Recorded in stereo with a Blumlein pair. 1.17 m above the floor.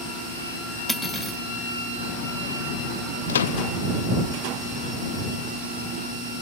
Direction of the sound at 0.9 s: 5° right.